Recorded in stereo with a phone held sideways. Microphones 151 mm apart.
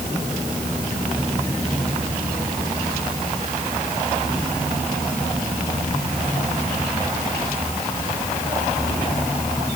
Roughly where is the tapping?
No tapping in this recording.